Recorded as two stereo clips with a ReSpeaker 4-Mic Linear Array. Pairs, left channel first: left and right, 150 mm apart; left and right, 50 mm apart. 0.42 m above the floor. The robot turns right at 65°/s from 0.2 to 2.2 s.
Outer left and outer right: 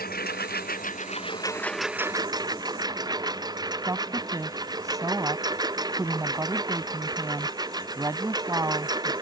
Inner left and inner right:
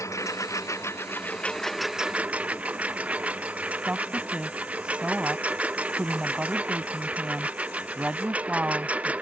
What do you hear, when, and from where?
0.0 s a lawn mower: 75° left; by 9.2 s 155° right
3.9 s a woman speaking: 20° right (ahead or behind)